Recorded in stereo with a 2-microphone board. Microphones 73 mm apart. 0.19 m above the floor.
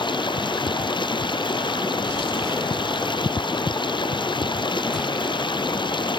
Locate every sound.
0.0 s running water: 80° left